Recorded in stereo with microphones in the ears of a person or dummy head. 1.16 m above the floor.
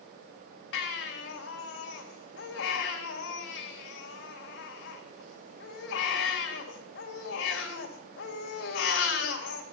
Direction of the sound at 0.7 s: 80° left.